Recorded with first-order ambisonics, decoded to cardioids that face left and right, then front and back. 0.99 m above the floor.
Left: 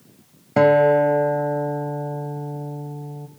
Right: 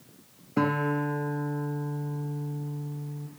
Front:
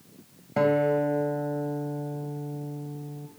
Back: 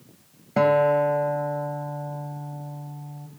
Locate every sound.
0.6 s a guitar: 105° left, 1.8 m